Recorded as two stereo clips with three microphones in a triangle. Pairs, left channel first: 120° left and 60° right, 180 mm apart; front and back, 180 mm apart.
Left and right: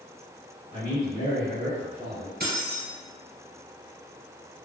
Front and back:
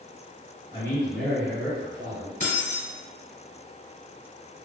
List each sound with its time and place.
0.7 s a man speaking: 30° right, 1.5 m; by 2.3 s 150° right, 1.8 m
2.4 s keys jangling: 40° right, 1.9 m